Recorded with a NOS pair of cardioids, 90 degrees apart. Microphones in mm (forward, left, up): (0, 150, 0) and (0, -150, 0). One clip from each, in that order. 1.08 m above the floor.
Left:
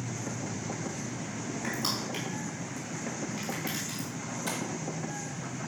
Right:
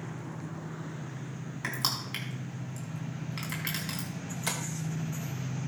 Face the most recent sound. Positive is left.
turn(degrees=-40)